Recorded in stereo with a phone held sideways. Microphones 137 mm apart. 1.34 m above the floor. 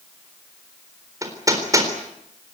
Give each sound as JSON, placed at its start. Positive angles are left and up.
{"t": 1.2, "sound": "hammering", "side_deg": -25, "distance_m": 4.0}